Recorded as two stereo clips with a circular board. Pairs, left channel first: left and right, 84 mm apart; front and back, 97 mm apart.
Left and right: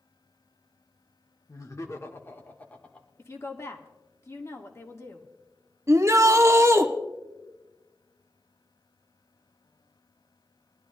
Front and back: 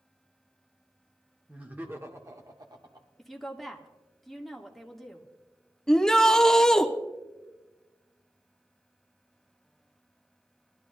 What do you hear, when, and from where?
1.5 s laughter: 105° left, 1.2 m; by 3.1 s 165° left, 1.3 m
3.2 s a woman speaking: 85° left, 1.3 m
5.9 s a shout: 80° right, 0.7 m